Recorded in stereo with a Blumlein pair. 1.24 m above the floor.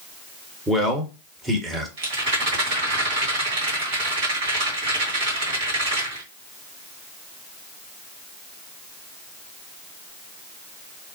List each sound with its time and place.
0.7 s a man speaking: 10° right, 0.9 m
2.0 s a rattle: 55° right, 1.7 m